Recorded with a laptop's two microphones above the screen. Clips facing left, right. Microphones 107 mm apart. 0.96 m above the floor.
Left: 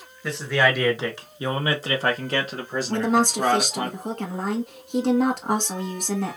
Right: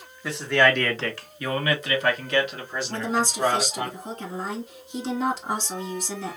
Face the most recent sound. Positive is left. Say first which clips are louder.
# left 5 dB
turn(degrees=60)  # may be behind; listen again after turning